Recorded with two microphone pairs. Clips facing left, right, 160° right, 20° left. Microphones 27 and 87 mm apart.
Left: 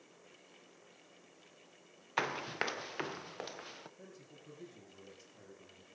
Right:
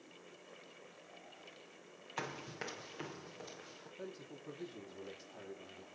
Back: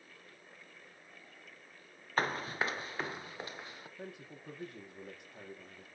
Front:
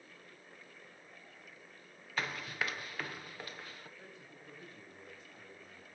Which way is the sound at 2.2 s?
145° left.